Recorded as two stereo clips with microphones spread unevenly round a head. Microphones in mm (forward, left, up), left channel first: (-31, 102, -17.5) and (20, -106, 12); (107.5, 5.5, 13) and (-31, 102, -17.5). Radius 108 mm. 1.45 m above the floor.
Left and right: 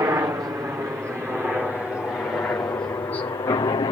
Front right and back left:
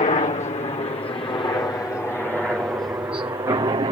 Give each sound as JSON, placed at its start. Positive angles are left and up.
{"t": 0.0, "sound": "a helicopter", "azimuth_deg": -5}